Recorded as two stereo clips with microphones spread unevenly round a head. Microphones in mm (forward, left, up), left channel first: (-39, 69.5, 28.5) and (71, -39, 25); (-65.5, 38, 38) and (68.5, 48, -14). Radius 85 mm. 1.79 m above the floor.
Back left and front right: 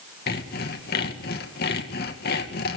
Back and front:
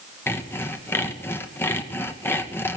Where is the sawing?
115° left, 2 m.